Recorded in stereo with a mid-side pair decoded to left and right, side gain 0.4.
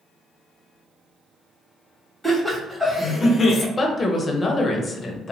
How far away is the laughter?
About 1.6 m.